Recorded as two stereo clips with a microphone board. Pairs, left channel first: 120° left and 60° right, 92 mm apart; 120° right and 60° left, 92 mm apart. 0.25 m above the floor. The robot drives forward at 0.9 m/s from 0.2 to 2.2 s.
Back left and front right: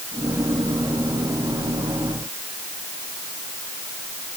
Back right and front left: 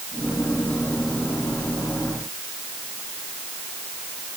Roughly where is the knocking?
No knocking in this recording.